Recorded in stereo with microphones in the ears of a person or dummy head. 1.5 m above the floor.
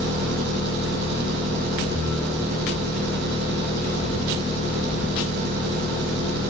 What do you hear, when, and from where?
0.0 s an engine running: 60° right (ahead or behind), 4 m